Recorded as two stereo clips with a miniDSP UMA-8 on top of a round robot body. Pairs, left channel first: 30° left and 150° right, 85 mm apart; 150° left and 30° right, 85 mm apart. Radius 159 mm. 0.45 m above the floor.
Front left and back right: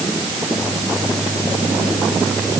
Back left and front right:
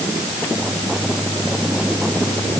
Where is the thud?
I don't hear a thud.